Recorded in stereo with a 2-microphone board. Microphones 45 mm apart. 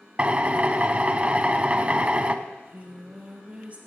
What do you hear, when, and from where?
0.2 s a drill: 30° right (ahead or behind), 0.7 m
2.5 s singing: 35° right (ahead or behind), 2 m